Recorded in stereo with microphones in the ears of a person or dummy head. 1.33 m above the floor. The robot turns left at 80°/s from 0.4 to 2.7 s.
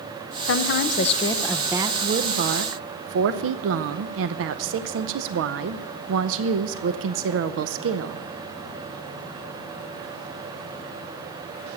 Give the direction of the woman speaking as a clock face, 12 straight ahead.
9 o'clock.